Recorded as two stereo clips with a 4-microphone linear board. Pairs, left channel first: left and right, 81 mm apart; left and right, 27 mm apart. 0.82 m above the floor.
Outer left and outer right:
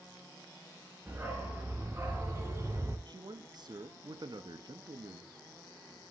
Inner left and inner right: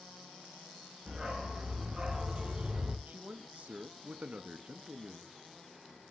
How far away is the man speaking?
About 0.9 m.